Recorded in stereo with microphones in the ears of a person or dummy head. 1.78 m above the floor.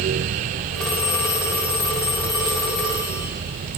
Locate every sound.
0.7 s a phone ringing: 10° left (ahead or behind), 2.5 m